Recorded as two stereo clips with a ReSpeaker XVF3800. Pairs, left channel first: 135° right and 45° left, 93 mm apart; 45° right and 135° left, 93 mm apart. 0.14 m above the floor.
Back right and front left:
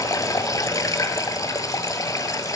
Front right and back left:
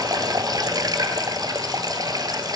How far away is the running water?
About 1.1 m.